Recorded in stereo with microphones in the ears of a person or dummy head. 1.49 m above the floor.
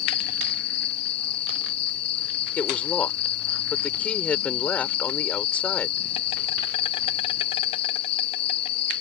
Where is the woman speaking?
10° left (ahead or behind).